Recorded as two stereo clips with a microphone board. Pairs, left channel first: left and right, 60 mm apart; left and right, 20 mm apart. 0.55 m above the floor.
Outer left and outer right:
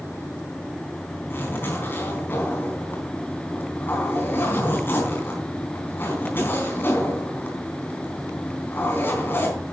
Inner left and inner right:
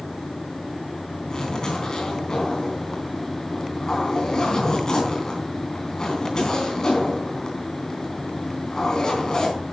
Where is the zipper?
35° left (ahead or behind), 4 m.